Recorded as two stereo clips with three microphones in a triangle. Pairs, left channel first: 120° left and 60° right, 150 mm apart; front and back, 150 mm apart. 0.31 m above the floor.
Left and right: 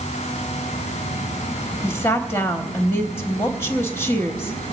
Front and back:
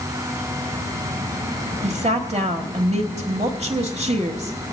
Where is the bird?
No bird in this recording.